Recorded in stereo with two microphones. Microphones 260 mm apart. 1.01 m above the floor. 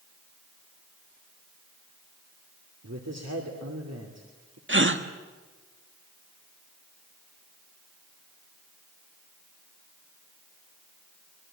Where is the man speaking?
75° right (ahead or behind), 2.5 m.